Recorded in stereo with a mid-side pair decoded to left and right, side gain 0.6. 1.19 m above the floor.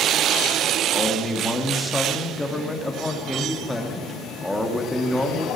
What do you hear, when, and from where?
0.9 s a man speaking: 5° left, 2.5 m